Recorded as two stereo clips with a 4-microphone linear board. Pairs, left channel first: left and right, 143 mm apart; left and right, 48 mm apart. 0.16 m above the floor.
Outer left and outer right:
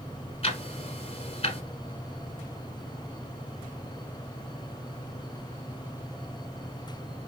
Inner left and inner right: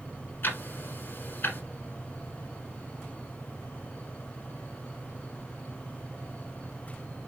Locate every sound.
0.4 s ticking: 45° left (ahead or behind), 1.1 m